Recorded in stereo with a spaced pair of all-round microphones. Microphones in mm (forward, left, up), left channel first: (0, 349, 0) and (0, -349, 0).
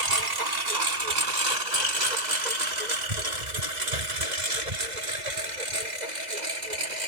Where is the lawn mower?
70° right (ahead or behind); by 7.1 s 80° right.